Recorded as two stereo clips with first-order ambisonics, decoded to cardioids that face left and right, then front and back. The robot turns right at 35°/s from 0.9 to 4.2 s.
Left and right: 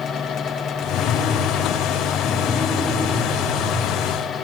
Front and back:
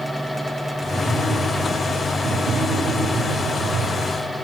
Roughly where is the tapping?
Left.